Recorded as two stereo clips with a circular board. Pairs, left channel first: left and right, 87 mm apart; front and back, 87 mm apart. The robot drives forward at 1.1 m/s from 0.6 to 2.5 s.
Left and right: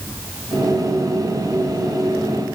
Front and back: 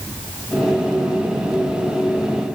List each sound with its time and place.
Only background noise.